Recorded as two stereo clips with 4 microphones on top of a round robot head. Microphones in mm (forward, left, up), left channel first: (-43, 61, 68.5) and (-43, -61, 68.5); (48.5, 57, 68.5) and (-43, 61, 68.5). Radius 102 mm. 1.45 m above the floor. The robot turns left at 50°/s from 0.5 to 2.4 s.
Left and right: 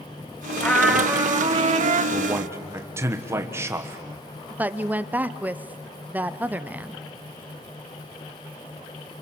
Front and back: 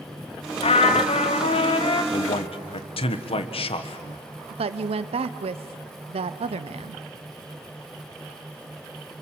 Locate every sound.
0.6 s a trumpet: 10° left, 1.3 m; by 2.0 s 60° right, 1.3 m
2.1 s a man speaking: 5° right, 1.5 m; by 4.2 s 20° right, 1.5 m
4.5 s a woman speaking: 170° right, 0.7 m